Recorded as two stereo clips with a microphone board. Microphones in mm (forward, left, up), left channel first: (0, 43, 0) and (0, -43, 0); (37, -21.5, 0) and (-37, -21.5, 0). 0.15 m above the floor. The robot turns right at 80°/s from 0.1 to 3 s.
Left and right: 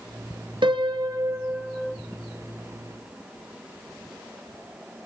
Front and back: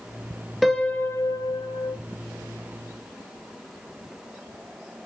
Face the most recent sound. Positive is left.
turn(degrees=100)